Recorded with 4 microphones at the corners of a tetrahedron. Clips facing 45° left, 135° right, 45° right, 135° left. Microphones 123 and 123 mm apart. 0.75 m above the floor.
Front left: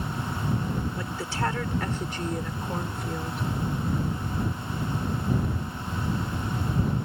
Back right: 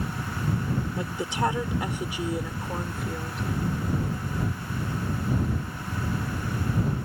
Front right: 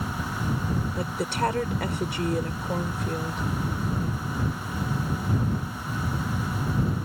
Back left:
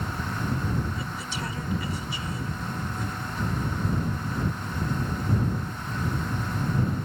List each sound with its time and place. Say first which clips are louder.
1.0 s a woman speaking: back right 2 dB, front right 7 dB; 70° right; by 3.4 s 45° right